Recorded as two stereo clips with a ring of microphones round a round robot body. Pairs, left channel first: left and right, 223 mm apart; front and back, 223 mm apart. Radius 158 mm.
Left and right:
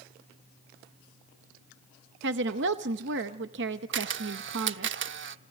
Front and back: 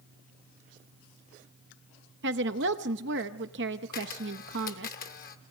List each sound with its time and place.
2.2 s a woman speaking: 135° right, 0.7 m
3.9 s a camera shutter: 60° right, 0.9 m